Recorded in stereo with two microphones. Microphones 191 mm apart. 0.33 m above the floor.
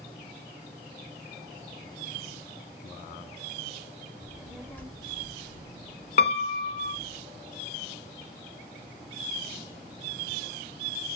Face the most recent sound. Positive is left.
turn(degrees=70)  # may be behind; listen again after turning